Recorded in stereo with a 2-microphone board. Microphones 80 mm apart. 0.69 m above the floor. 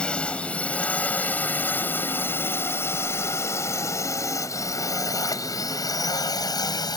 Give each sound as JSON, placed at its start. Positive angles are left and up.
{"t": 0.0, "sound": "a drone", "side_deg": 10}